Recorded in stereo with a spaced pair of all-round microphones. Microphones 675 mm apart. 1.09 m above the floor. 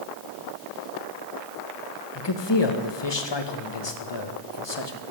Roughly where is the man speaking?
Left.